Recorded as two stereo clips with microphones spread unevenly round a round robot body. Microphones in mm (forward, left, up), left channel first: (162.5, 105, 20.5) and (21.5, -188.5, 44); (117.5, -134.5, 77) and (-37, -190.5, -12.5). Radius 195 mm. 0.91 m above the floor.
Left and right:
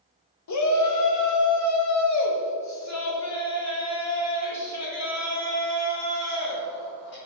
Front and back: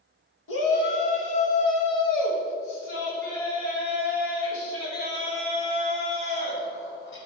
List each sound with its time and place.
0.5 s a shout: 45° left, 1.2 m; by 7.2 s 25° left, 4.5 m